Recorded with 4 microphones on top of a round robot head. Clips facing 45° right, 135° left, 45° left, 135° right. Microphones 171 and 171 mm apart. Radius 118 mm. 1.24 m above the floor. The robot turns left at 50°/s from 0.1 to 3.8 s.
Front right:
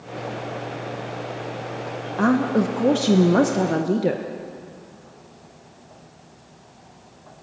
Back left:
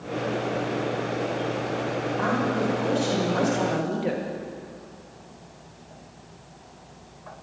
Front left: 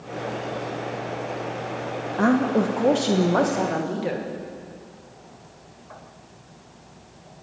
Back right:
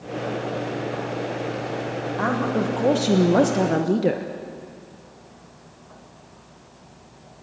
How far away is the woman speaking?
About 1.4 m.